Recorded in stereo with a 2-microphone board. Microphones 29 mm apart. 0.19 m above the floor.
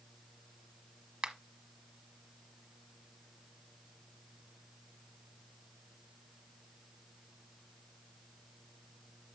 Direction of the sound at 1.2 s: 25° right (ahead or behind).